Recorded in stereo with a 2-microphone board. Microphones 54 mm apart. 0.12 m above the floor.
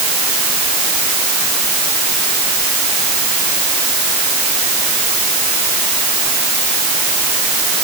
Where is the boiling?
No boiling in this recording.